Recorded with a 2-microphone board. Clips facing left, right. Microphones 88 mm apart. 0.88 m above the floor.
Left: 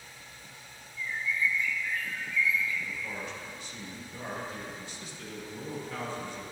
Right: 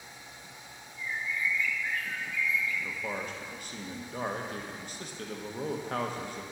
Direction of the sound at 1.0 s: 50° right (ahead or behind).